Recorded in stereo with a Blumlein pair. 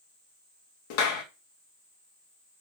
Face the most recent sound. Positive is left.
turn(degrees=45)